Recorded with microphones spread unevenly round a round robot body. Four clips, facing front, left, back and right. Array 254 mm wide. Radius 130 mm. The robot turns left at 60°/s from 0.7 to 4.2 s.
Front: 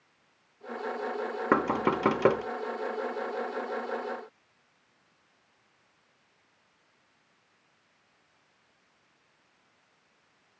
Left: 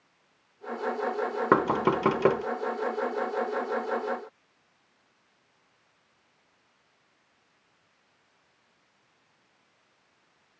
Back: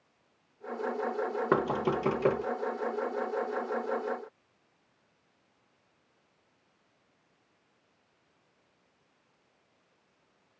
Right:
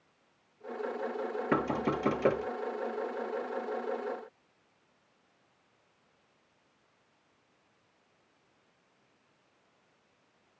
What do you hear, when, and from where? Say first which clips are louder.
1.5 s knocking: left 7 dB, front 3 dB; 90° left, 1.4 m; by 2.4 s 35° left, 1.4 m